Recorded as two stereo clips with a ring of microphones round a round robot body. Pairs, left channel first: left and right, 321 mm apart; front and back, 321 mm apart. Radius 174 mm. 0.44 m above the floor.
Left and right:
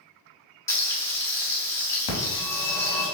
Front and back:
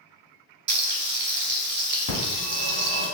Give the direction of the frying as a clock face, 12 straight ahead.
7 o'clock.